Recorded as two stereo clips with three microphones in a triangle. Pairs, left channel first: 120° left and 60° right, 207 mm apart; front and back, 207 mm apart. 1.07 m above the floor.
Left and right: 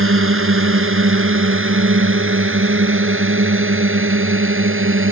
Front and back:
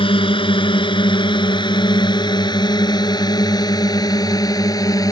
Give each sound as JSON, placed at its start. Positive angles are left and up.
{"t": 0.0, "sound": "a drone", "azimuth_deg": -65}